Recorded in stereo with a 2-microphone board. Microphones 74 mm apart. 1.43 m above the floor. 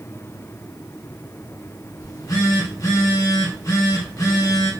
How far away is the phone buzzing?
About 1.1 m.